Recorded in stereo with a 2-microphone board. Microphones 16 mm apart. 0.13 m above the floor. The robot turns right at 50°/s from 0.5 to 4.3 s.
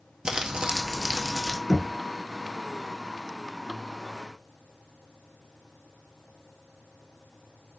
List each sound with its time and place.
0.2 s crumpling: 80° right, 0.7 m; by 1.6 s 25° right, 0.7 m
1.7 s knocking: 25° left (ahead or behind), 1.3 m; by 1.9 s 30° left (ahead or behind), 1.3 m